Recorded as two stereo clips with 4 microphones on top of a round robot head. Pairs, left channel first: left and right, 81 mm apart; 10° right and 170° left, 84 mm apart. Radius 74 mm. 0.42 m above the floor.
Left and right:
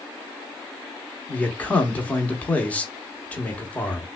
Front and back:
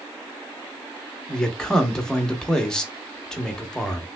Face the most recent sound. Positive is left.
turn(degrees=60)